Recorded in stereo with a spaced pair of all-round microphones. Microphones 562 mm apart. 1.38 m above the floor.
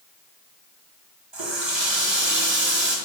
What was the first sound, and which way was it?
A running tap, 50° right (ahead or behind).